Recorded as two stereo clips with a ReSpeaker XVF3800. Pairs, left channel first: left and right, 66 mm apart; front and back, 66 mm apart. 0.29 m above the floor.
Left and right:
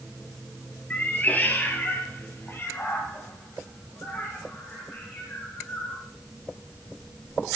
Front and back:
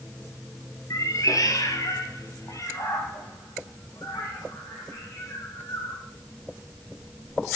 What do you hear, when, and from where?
0.9 s a cat meowing: 25° left, 1.5 m; by 6.0 s 40° left, 4.5 m